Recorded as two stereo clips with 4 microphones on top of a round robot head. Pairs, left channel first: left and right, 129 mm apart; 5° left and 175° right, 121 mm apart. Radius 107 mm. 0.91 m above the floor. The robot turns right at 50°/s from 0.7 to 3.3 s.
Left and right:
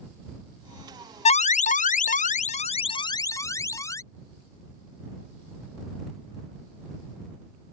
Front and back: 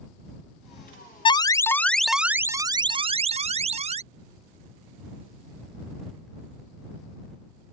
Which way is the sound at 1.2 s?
55° left.